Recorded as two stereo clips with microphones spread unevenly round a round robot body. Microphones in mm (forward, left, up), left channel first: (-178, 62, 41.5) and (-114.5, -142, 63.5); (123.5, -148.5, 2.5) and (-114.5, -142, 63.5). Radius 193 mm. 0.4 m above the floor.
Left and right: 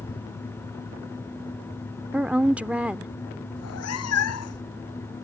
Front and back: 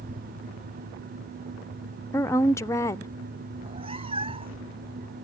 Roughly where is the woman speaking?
Ahead.